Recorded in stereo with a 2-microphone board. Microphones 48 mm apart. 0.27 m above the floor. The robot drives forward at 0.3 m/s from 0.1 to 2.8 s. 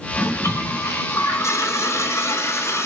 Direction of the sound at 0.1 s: 65° left (ahead or behind).